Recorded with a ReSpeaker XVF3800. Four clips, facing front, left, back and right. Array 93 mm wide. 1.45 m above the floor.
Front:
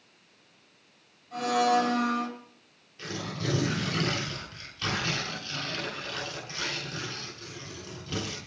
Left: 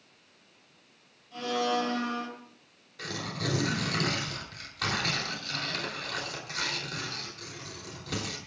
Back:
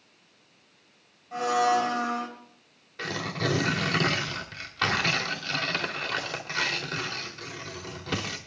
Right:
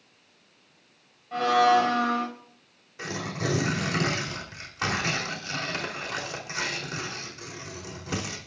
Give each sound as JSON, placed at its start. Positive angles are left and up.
{"t": 1.3, "sound": "a blender", "azimuth_deg": -110, "distance_m": 4.0}
{"t": 3.0, "sound": "tearing paper", "azimuth_deg": -160, "distance_m": 3.5}